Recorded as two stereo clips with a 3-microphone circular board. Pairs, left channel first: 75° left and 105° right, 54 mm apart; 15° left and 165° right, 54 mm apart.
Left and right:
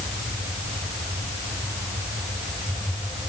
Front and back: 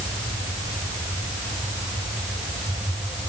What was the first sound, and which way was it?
Only background noise.